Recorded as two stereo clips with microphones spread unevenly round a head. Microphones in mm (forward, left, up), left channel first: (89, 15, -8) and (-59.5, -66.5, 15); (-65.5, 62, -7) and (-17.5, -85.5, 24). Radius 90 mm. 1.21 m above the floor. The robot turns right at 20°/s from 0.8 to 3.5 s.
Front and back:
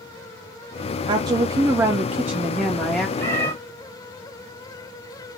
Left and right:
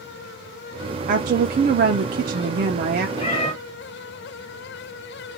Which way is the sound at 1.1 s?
90° right.